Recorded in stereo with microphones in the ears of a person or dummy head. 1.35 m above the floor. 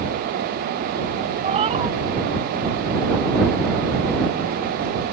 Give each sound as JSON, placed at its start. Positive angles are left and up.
{"t": 1.4, "sound": "a cat meowing", "side_deg": -35}